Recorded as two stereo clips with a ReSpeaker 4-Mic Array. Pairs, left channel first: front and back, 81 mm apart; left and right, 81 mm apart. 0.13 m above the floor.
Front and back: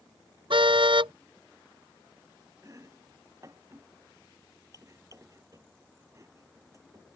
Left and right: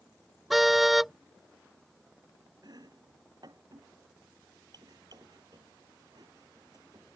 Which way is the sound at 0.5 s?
Straight behind.